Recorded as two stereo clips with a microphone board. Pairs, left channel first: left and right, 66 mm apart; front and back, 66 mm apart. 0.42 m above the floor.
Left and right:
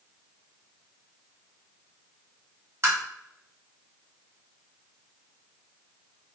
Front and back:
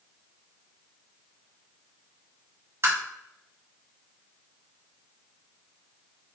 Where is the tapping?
135° right, 1.9 m.